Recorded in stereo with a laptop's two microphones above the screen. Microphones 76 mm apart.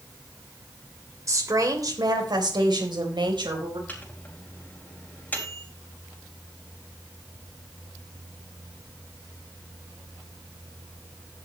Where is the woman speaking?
40° right (ahead or behind), 3 m; by 3.8 s 75° right (ahead or behind), 4 m.